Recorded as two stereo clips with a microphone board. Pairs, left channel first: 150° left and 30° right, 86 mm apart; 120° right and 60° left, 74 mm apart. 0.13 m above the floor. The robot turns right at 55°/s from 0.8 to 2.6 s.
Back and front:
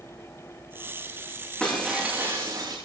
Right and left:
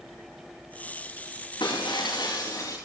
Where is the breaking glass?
130° right, 9.5 m; by 2.8 s 75° right, 9.5 m.